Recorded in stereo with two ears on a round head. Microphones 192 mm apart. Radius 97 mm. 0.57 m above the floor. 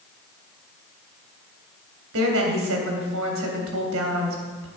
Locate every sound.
2.1 s a woman speaking: 70° right (ahead or behind), 3 m